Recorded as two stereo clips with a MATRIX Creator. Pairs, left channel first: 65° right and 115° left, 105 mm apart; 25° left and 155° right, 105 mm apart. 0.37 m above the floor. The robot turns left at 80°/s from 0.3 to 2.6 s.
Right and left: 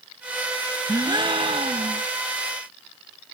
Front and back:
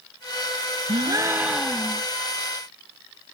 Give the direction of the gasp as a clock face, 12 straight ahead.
6 o'clock.